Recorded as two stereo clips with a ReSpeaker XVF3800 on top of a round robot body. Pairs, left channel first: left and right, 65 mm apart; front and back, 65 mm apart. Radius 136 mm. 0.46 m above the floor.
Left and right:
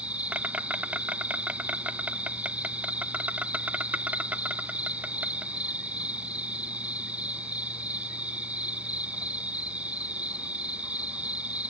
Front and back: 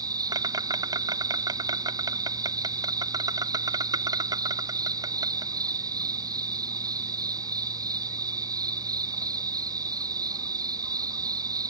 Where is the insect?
160° right.